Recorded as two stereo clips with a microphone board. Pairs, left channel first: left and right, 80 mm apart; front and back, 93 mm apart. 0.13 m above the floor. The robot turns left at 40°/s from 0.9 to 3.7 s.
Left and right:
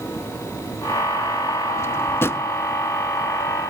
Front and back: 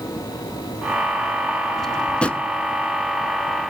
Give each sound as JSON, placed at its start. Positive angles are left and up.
{"t": 1.8, "sound": "a drawer", "azimuth_deg": 85, "distance_m": 0.8}